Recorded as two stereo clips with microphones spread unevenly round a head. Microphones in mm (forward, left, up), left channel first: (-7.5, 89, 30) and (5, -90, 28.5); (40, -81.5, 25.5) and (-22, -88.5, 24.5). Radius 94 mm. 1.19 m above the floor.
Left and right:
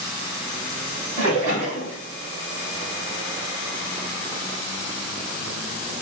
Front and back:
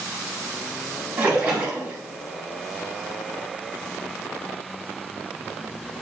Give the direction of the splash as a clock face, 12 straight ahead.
4 o'clock.